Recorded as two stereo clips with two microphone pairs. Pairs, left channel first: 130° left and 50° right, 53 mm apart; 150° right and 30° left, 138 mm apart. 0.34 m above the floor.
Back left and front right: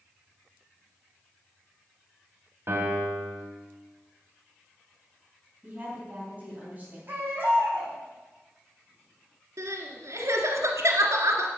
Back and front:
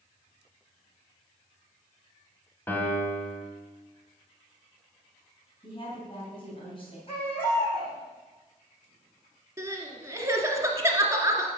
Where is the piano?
75° right, 2 m.